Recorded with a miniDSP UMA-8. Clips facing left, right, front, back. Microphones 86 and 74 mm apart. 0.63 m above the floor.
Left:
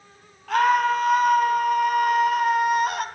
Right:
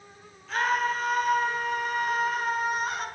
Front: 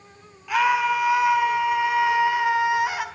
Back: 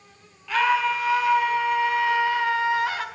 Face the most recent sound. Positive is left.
turn(degrees=75)